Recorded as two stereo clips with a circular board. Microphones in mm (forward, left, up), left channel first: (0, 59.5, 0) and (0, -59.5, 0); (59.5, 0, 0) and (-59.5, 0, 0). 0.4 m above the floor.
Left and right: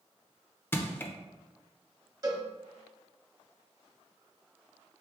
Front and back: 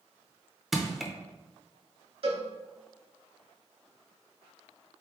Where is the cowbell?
145° right, 0.7 m.